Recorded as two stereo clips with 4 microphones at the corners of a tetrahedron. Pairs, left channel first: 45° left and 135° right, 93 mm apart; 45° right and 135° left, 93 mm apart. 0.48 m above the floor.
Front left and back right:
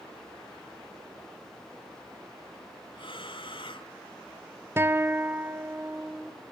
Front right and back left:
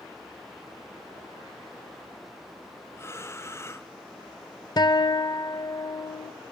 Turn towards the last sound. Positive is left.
turn(degrees=-75)